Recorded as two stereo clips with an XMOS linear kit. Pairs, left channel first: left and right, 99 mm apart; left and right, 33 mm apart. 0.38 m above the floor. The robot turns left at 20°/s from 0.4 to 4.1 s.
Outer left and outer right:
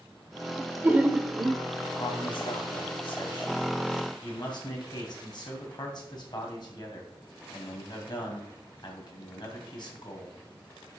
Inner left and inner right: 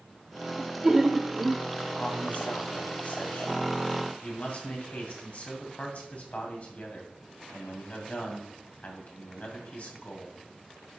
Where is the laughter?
20° right (ahead or behind), 0.8 m.